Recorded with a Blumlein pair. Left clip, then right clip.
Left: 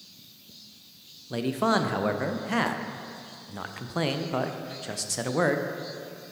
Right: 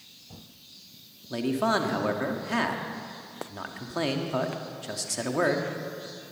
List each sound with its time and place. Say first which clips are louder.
1.3 s a man speaking: left 1 dB; 5° left, 0.8 m